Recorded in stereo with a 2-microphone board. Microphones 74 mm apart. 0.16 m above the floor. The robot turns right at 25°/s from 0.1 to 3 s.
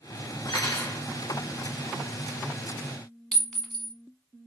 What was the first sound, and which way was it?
Cutlery clinking, 60° left (ahead or behind).